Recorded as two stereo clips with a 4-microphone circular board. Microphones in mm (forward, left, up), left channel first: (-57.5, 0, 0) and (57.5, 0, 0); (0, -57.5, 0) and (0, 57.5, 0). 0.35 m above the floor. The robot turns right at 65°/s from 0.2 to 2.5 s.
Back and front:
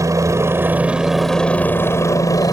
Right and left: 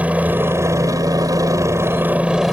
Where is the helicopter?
25° left; by 2.5 s 175° left.